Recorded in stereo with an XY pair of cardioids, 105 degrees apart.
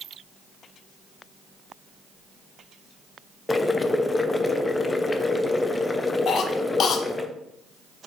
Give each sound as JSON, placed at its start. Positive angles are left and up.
{"t": 3.5, "sound": "boiling", "azimuth_deg": 20, "distance_m": 0.7}
{"t": 6.3, "sound": "a cough", "azimuth_deg": 60, "distance_m": 1.0}